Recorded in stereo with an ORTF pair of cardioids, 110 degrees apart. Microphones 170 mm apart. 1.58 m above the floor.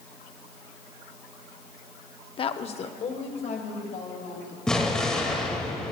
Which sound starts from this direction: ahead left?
A woman speaking, at 2.4 s.